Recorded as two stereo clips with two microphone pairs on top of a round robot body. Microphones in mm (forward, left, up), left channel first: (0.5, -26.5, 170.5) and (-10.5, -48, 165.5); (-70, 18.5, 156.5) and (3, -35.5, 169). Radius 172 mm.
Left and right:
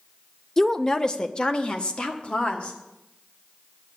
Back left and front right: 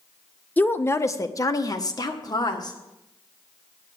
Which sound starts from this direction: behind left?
A woman speaking, at 0.6 s.